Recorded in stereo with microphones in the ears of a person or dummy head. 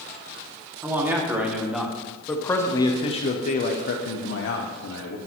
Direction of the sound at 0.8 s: 10° right (ahead or behind).